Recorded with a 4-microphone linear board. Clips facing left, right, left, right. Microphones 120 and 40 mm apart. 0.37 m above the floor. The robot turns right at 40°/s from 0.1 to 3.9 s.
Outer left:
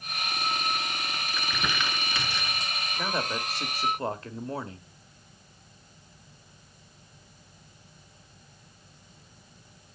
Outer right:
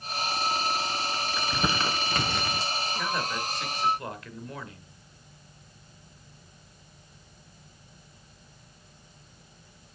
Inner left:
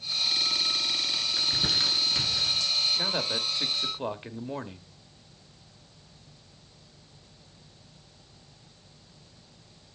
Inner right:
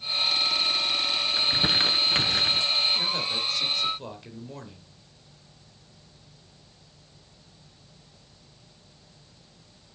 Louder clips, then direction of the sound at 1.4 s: Outer right 3 dB, inner right 4 dB; 20° right (ahead or behind).